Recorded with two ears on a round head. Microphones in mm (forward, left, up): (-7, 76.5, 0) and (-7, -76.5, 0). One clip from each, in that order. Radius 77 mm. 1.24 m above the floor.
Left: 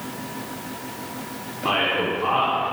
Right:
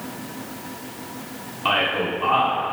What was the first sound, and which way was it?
A man speaking, 60° right (ahead or behind).